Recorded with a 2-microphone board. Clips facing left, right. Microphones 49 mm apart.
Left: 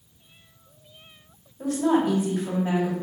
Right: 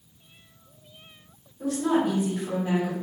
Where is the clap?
I don't hear a clap.